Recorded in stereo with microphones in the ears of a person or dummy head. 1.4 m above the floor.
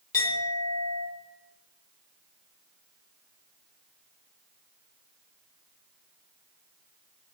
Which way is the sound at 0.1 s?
20° left (ahead or behind).